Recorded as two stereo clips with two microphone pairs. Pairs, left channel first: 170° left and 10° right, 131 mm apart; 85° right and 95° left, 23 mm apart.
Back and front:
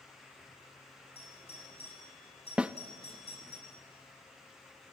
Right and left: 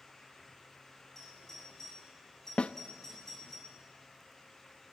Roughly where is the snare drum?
Right.